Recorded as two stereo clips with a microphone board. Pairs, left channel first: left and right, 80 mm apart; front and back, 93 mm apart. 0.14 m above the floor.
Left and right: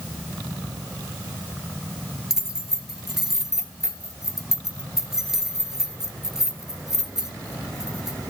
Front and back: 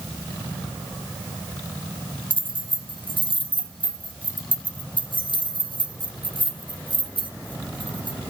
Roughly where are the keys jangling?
Ahead.